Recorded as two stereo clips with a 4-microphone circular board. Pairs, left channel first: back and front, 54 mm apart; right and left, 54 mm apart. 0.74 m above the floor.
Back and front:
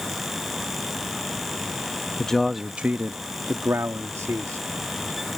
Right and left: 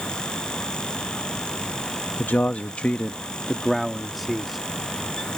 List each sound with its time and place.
2.2 s a man speaking: 115° right; by 4.6 s 5° left